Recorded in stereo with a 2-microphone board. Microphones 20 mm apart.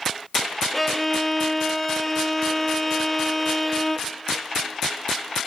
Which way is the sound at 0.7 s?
15° left (ahead or behind).